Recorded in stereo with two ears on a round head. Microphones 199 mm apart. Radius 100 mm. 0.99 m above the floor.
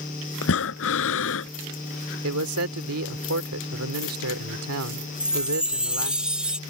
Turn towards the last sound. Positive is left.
turn(degrees=-5)  # may be behind; listen again after turning